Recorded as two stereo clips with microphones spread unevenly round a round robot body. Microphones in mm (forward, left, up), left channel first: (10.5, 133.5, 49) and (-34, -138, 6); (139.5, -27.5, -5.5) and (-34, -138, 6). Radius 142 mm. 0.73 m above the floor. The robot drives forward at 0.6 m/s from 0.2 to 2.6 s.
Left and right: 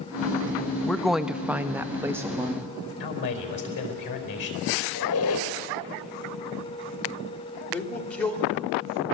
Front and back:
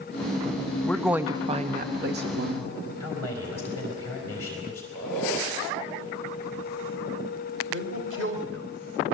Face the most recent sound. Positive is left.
turn(degrees=170)